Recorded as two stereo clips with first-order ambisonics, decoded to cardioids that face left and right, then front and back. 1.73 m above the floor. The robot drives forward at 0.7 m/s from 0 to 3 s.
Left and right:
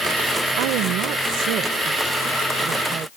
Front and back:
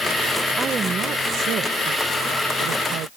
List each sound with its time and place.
0.6 s a woman speaking: 110° right; by 3.1 s 145° right